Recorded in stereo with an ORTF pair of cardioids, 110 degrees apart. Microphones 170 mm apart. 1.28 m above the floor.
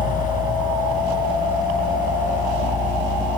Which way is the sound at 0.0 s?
50° left.